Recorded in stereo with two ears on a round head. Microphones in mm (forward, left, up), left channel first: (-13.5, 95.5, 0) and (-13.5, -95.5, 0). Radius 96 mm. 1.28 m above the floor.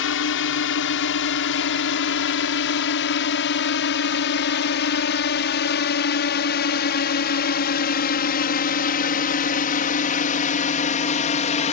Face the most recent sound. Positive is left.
turn(degrees=35)  # may be behind; listen again after turning